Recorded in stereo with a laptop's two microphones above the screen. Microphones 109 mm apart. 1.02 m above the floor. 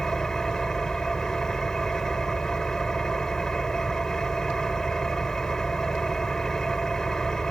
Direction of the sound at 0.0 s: 5° left (ahead or behind).